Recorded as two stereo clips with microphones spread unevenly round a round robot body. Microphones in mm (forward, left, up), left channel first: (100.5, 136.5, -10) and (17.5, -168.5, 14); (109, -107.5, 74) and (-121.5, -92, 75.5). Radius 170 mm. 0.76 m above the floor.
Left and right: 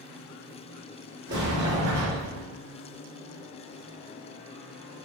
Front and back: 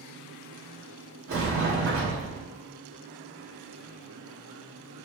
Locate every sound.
1.3 s a sliding door: 165° right, 1.7 m